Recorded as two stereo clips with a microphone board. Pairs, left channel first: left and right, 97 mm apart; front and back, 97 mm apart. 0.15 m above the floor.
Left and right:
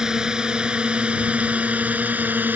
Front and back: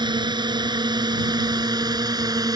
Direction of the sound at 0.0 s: 170° right.